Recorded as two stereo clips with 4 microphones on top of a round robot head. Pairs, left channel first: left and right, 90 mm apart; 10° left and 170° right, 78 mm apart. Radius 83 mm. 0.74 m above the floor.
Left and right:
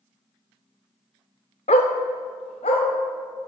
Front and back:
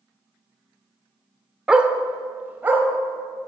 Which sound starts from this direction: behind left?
A dog barking, at 1.7 s.